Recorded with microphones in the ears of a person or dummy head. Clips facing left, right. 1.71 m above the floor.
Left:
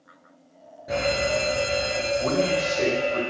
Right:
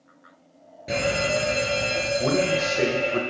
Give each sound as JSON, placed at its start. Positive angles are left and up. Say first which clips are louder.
{"t": 0.9, "sound": "a fire alarm", "louder": "even", "side_deg": -30, "distance_m": 2.5}
{"t": 2.2, "sound": "a man speaking", "louder": "right 1 dB", "side_deg": -30, "distance_m": 1.6}